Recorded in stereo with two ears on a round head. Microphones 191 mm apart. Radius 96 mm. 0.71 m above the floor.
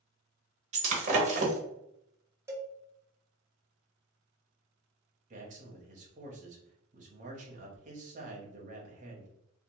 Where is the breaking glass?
35° right (ahead or behind), 0.8 m.